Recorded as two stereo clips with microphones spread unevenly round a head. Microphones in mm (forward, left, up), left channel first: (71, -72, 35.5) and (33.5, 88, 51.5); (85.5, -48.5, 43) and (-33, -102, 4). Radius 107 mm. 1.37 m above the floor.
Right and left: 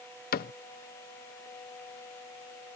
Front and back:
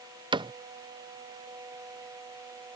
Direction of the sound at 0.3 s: 110° right.